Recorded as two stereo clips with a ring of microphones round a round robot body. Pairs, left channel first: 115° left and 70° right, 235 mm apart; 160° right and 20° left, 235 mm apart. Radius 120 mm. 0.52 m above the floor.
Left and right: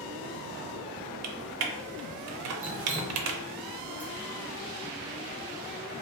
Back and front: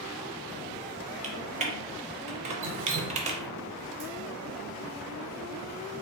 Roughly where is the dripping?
Ahead.